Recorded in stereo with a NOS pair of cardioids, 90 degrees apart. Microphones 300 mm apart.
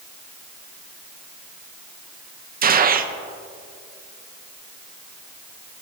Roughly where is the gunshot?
Ahead right.